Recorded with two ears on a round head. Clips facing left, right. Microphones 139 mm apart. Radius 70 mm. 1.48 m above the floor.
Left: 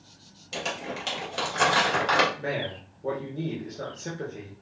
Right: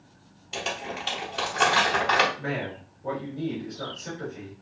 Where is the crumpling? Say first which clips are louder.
Even; 80° left, 1.8 m.